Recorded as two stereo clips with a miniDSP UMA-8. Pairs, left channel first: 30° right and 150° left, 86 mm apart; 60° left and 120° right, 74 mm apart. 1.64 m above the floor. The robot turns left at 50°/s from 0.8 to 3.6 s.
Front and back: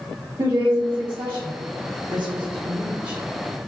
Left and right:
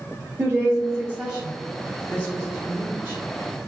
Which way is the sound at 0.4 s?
175° right.